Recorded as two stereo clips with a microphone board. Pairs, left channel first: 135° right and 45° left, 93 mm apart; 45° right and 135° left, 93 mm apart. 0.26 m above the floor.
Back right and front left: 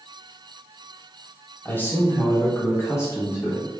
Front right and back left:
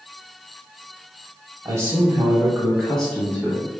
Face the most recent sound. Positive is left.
turn(degrees=-100)